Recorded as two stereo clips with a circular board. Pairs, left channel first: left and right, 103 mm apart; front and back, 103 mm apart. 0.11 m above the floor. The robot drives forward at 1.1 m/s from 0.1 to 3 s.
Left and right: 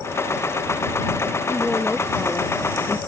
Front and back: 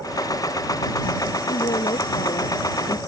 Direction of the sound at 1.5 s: 5° left.